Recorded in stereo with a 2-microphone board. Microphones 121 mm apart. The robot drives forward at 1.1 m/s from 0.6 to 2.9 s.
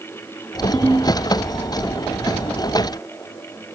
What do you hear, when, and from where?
0.7 s a ringtone: 10° left (ahead or behind), 1.4 m